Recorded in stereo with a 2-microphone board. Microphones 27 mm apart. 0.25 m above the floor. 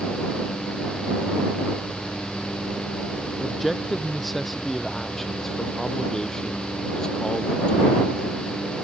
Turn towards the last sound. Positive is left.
turn(degrees=30)  # may be behind; listen again after turning